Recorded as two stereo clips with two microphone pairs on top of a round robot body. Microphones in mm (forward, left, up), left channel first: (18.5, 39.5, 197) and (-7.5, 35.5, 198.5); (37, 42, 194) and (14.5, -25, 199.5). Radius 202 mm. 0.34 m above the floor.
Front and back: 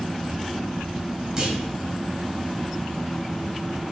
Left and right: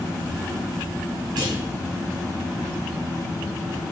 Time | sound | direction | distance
1.4 | a clunk | 95° right | 1.8 m